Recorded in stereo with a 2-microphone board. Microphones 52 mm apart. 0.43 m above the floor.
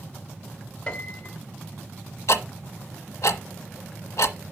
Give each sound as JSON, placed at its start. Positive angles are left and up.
{"t": 0.9, "sound": "a piano", "side_deg": 25, "distance_m": 1.1}
{"t": 2.3, "sound": "ticking", "side_deg": 85, "distance_m": 0.9}